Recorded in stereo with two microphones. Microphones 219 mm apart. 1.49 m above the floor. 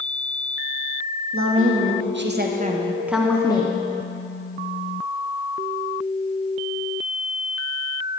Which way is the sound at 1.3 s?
75° right (ahead or behind).